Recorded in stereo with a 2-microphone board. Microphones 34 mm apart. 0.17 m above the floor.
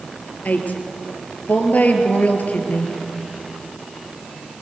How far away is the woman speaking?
About 3 m.